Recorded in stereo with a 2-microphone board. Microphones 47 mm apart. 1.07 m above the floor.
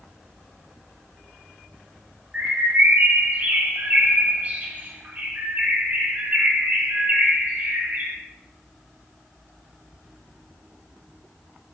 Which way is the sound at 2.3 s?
30° right (ahead or behind).